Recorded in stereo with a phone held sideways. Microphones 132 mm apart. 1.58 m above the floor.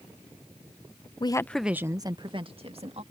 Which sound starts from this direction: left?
A woman speaking, at 1.2 s.